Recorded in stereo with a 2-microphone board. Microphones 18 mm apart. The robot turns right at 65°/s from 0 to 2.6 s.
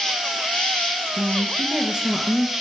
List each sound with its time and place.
0.0 s an insect: 30° left, 3.5 m; by 2.6 s 165° right, 3.5 m
1.2 s a woman speaking: 130° right, 2.0 m; by 2.5 s 45° right, 2.0 m